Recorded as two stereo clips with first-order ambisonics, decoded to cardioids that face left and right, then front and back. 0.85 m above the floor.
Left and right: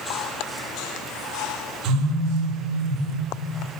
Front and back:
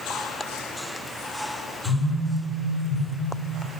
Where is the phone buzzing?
50° right, 3.5 m.